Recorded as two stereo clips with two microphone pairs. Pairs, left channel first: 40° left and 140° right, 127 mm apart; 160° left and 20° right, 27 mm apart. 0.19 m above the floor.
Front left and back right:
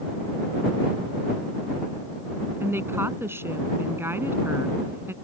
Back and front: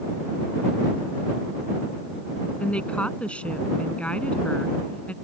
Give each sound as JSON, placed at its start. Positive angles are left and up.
{"t": 2.6, "sound": "a woman speaking", "azimuth_deg": 155}